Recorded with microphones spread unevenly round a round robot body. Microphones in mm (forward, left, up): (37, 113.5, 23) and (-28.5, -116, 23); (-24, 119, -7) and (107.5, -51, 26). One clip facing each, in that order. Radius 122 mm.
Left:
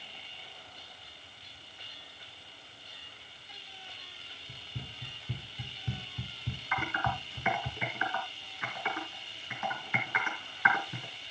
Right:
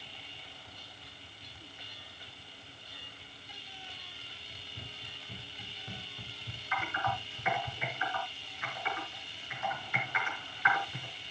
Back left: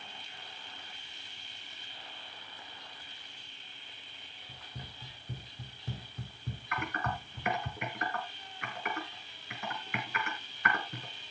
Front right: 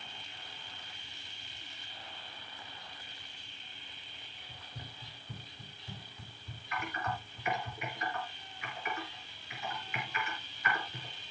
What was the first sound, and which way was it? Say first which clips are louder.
Running footsteps: left 5 dB, back left 1 dB; 60° left.